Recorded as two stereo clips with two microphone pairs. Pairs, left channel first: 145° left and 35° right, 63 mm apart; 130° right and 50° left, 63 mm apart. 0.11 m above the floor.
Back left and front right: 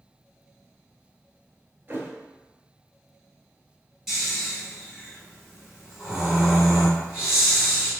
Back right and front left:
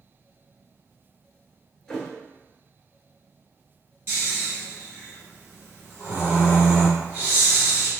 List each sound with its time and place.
1.9 s a thud: 55° right, 0.7 m
4.1 s snoring: 45° left, 1.9 m